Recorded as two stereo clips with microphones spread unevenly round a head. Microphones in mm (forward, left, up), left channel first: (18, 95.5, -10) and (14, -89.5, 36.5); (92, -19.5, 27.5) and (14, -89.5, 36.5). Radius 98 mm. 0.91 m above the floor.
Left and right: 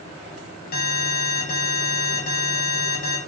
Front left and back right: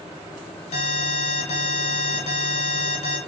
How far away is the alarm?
About 7 m.